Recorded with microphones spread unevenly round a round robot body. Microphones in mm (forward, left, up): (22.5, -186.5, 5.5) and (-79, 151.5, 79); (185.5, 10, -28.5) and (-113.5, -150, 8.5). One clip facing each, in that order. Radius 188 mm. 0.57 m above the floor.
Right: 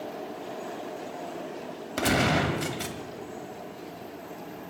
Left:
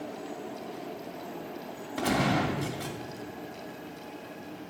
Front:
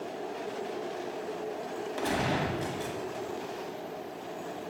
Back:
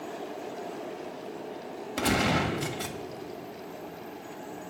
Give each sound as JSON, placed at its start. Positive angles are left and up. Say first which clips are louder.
{"t": 2.0, "sound": "a gunshot", "louder": "right 2 dB, back 4 dB", "azimuth_deg": -105, "distance_m": 1.8}